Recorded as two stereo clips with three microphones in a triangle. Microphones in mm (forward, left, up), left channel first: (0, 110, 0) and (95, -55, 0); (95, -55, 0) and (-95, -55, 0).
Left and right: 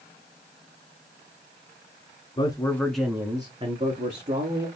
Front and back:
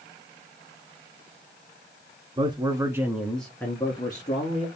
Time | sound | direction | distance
2.4 | a man speaking | 150° left | 1.3 m